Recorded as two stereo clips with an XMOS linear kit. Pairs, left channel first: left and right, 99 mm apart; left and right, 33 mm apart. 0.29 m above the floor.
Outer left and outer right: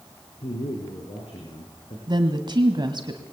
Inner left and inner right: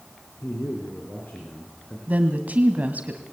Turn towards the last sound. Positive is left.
turn(degrees=-50)  # may be behind; listen again after turning